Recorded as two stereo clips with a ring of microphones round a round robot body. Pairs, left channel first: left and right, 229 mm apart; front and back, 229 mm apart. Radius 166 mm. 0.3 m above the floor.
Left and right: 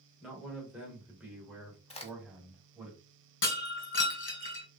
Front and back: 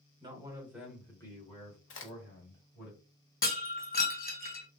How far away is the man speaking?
About 1.1 m.